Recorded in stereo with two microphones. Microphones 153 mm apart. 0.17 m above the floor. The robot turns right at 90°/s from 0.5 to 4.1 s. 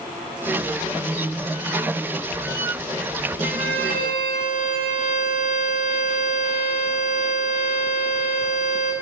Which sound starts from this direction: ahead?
A violin, at 3.4 s.